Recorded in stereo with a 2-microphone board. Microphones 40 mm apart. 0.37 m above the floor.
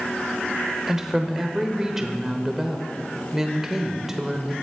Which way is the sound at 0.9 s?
15° right (ahead or behind).